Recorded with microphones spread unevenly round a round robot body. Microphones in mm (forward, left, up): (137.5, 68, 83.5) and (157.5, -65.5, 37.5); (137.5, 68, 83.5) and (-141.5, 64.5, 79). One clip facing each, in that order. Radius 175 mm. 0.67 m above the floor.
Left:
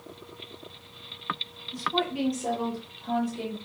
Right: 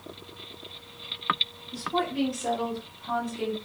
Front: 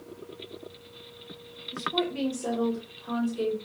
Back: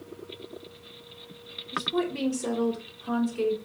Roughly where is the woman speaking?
Right.